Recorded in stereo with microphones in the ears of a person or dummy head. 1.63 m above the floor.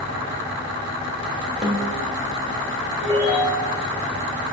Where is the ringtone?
30° left (ahead or behind), 3.5 m.